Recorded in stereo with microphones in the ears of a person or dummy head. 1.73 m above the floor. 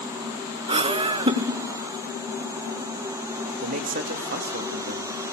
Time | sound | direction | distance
0.7 | laughter | 35° right (ahead or behind) | 1.8 m
3.6 | a man speaking | 55° right (ahead or behind) | 2.5 m